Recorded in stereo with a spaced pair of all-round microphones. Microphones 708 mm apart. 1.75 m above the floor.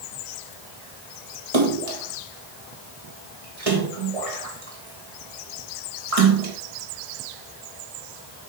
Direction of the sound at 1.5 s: 50° right (ahead or behind).